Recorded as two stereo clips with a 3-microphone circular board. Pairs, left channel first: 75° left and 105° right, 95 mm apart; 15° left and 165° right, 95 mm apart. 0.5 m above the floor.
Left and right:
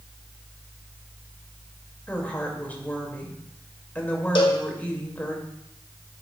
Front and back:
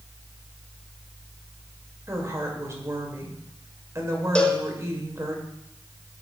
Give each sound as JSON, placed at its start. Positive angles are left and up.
{"t": 2.1, "sound": "a woman speaking", "azimuth_deg": 145, "distance_m": 2.0}
{"t": 4.3, "sound": "a cowbell", "azimuth_deg": 90, "distance_m": 1.3}